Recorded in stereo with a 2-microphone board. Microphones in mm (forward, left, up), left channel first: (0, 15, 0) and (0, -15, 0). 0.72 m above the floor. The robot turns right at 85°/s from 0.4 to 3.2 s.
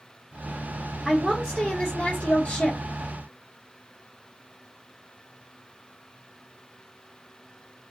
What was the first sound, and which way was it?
A woman speaking, 5° left.